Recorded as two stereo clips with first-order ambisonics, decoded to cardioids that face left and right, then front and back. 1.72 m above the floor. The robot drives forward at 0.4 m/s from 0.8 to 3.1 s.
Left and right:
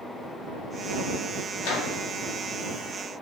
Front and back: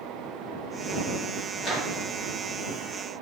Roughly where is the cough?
I don't hear a cough.